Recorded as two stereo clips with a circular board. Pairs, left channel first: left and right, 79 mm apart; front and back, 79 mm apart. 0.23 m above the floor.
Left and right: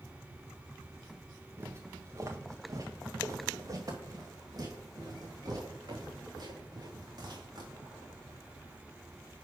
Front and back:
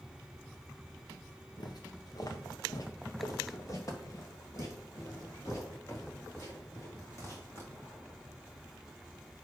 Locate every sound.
1.6 s footsteps: 35° right, 1.0 m; by 8.2 s 55° right, 4.5 m